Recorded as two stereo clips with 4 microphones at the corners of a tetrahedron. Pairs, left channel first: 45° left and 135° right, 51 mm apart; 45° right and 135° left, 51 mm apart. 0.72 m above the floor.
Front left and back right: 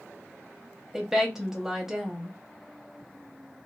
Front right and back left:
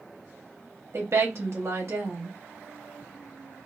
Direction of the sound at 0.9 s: 145° left.